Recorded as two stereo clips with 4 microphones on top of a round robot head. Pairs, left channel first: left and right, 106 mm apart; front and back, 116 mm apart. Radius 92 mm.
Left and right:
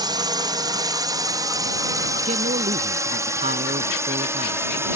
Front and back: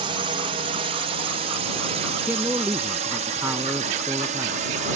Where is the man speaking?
105° right.